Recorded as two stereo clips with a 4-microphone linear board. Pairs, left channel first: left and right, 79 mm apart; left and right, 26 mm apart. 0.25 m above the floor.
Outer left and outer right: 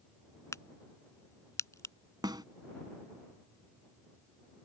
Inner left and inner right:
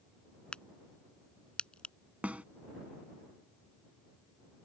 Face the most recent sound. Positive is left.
turn(degrees=-65)  # may be behind; listen again after turning